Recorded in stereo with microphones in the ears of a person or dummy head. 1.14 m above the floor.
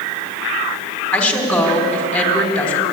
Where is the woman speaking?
5° left (ahead or behind), 3.5 m.